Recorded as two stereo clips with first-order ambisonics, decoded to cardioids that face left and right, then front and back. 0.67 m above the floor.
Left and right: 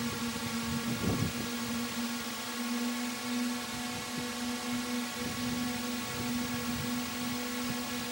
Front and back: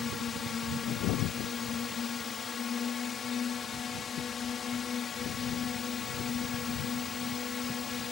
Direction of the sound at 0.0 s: 10° right.